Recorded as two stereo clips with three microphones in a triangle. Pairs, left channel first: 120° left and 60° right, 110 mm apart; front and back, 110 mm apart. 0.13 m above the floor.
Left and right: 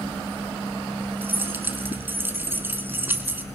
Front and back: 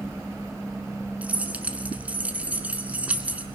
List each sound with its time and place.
1.2 s keys jangling: 115° right, 1.1 m